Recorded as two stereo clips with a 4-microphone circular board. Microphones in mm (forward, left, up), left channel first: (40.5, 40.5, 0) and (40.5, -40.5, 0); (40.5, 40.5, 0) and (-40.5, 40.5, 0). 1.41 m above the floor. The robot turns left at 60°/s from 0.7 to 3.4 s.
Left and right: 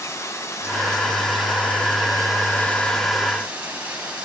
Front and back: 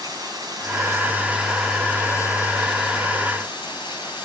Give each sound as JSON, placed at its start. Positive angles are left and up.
{"t": 0.0, "sound": "running water", "azimuth_deg": 145, "distance_m": 8.0}